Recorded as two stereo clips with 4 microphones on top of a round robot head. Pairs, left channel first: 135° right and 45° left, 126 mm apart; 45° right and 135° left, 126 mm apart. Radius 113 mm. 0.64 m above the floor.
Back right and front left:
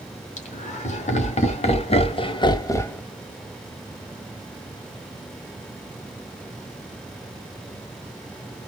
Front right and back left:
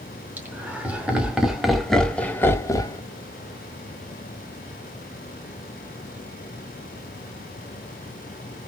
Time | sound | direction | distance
0.4 | laughter | 150° right | 2.5 m